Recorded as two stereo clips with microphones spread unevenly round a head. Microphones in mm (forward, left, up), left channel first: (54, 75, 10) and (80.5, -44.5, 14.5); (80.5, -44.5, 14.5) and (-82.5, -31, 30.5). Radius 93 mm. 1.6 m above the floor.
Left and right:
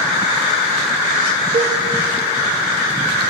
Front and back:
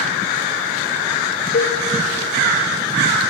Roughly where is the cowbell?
Ahead right.